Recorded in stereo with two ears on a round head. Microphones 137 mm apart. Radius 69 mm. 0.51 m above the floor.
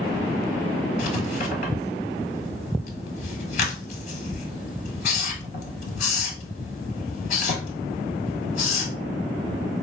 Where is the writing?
55° left (ahead or behind), 1.5 m.